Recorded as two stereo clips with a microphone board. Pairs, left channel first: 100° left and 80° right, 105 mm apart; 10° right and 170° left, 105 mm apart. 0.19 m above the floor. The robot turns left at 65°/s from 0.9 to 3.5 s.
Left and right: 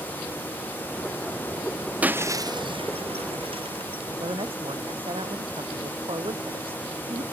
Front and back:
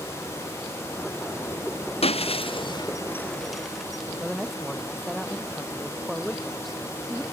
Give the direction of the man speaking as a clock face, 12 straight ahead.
3 o'clock.